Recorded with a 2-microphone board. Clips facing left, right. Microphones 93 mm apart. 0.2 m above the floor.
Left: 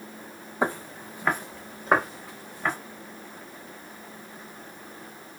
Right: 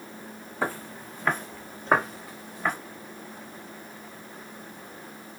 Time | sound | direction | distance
0.6 | footsteps | 20° left (ahead or behind) | 0.6 m